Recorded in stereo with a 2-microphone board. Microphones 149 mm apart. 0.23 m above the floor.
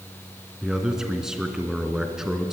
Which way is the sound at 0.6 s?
5° right (ahead or behind).